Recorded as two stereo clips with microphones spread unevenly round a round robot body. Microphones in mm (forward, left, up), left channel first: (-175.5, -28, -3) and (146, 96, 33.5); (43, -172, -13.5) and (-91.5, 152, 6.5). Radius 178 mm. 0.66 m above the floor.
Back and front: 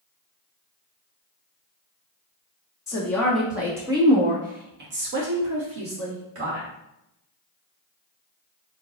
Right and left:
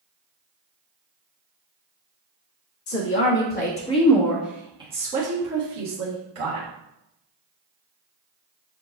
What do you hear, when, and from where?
2.9 s a woman speaking: 85° right, 1.3 m; by 6.7 s 70° left, 1.8 m